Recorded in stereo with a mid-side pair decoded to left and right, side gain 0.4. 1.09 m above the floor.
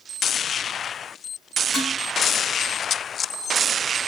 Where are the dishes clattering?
55° left, 6 m.